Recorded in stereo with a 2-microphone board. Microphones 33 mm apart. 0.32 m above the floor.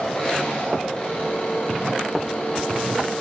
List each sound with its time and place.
0.0 s an engine running: 25° left (ahead or behind), 10 m